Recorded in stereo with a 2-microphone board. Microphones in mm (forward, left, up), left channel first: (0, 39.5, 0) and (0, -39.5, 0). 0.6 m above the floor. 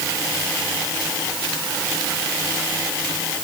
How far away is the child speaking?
No child speaking in this recording.